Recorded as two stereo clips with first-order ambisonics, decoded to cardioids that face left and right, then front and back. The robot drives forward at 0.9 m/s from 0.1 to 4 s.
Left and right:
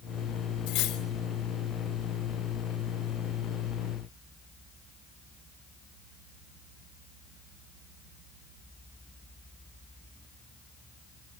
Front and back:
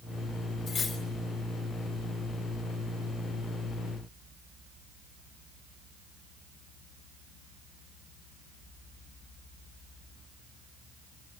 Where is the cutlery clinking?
60° left, 3.5 m; by 1.0 s 65° left, 3 m.